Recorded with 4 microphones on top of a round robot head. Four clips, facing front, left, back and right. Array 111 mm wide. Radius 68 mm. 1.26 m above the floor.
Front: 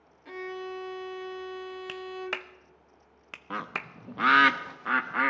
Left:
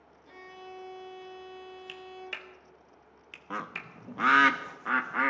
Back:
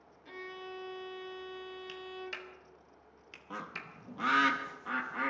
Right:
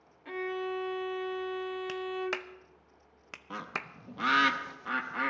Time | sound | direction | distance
0.2 | a violin | 60° right | 0.9 m
1.9 | a clap | 35° right | 0.6 m
3.5 | a bird | 35° left | 0.6 m